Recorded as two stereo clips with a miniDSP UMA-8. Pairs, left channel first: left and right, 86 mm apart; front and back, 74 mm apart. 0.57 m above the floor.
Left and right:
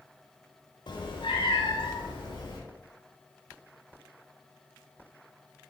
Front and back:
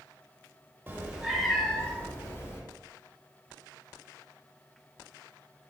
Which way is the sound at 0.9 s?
120° left.